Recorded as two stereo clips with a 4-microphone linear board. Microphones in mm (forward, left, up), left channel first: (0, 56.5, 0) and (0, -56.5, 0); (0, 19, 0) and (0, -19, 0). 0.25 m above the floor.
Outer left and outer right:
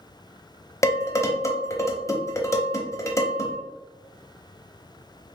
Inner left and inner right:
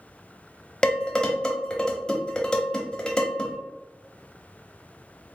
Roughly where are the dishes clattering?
Left.